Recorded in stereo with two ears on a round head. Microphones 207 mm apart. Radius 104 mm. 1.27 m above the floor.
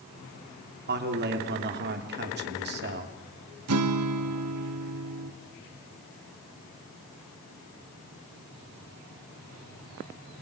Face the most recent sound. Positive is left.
turn(degrees=-75)  # may be behind; listen again after turning